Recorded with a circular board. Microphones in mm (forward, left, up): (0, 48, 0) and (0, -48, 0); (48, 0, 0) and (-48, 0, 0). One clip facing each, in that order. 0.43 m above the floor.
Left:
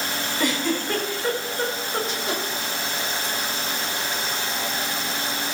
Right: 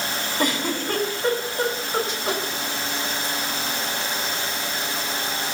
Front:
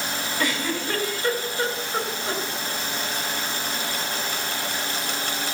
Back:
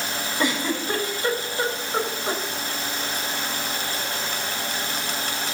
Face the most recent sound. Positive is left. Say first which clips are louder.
# even, back 2 dB
turn(degrees=-115)